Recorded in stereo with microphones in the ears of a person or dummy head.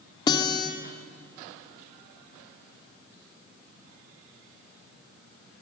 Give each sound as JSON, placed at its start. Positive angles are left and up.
{"t": 0.3, "sound": "a guitar", "side_deg": 30, "distance_m": 2.5}